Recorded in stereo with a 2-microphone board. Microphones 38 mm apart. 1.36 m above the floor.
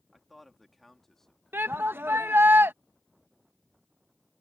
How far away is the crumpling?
I don't hear crumpling.